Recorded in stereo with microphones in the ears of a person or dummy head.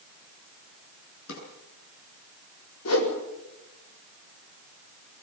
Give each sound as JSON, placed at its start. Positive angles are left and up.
{"t": 1.3, "sound": "a drawer", "side_deg": 85, "distance_m": 8.0}
{"t": 2.9, "sound": "a whoosh", "side_deg": 85, "distance_m": 5.0}